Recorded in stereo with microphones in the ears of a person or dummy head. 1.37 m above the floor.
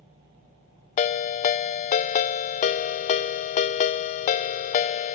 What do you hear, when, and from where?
1.0 s a ringtone: 40° left (ahead or behind), 0.5 m